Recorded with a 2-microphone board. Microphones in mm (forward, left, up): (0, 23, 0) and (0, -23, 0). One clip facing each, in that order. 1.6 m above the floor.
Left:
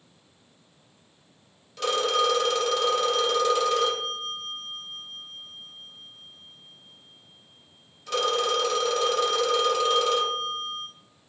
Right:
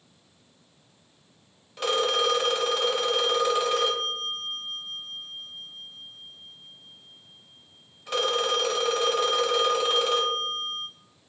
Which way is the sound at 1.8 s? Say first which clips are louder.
Left 1 dB; 15° right (ahead or behind).